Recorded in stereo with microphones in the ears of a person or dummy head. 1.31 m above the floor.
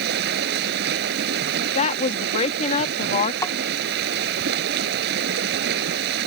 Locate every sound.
0.0 s running water: 60° right (ahead or behind)
1.8 s a woman speaking: 40° left (ahead or behind)
3.4 s tapping: 25° left (ahead or behind)